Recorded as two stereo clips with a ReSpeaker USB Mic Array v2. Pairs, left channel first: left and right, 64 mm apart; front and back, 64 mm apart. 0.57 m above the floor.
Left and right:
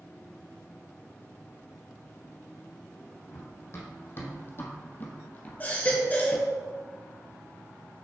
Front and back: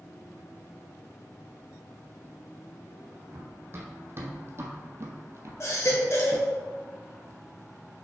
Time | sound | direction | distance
3.3 | running footsteps | 130° left | 2 m
5.6 | a baby crying | 30° left | 1.8 m